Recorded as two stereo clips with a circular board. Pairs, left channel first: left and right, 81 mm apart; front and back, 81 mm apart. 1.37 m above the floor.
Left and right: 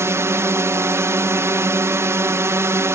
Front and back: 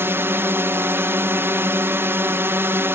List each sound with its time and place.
0.0 s a drone: 130° right